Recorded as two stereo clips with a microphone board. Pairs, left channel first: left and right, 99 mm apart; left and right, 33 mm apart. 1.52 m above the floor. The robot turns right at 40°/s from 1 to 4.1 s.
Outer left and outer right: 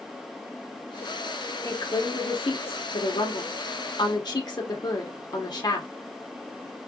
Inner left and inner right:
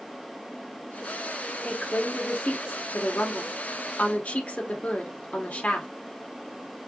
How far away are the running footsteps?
I don't hear running footsteps.